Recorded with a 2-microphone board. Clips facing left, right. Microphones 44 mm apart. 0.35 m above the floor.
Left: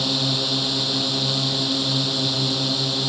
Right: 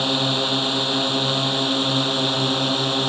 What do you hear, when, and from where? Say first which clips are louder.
0.0 s a drone: right 3 dB; 30° right (ahead or behind); by 3.1 s 35° right (ahead or behind)